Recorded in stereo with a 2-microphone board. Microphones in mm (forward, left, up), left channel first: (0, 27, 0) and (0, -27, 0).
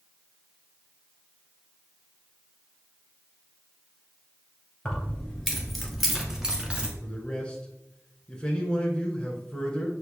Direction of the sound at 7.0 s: 15° left (ahead or behind).